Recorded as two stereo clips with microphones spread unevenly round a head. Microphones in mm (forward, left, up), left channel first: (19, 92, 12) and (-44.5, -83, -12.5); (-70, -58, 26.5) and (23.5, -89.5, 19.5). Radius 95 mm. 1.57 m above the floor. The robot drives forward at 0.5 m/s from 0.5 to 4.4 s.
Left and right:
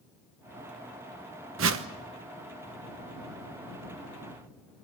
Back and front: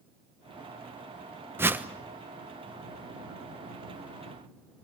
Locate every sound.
1.6 s a whoosh: 85° right, 1.1 m; by 1.9 s 95° right, 1.1 m